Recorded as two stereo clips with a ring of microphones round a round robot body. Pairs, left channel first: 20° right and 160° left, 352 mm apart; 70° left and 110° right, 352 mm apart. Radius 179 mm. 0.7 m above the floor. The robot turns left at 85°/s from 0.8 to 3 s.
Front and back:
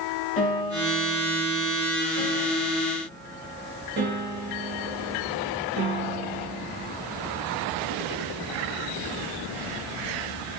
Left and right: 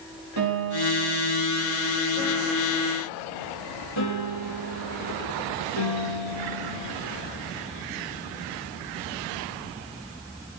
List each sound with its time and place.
0.4 s a piano: 80° right, 4.5 m; by 7.0 s 95° left, 4.5 m